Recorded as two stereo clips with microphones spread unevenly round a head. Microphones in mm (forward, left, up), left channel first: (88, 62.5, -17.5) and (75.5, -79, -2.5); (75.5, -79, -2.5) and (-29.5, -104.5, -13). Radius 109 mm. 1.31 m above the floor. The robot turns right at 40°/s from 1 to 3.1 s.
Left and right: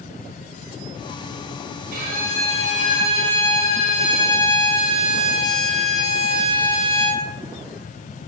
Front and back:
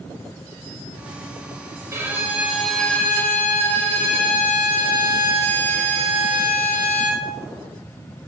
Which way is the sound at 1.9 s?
105° right.